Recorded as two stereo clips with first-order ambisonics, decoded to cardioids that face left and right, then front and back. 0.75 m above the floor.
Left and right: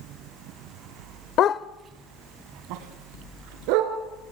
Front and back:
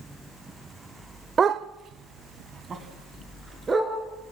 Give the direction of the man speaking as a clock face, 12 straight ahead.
I don't hear a man speaking.